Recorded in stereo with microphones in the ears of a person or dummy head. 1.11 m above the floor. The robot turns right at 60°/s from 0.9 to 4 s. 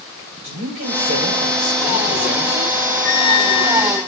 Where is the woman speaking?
75° right, 3 m; by 2.8 s 35° left, 3 m.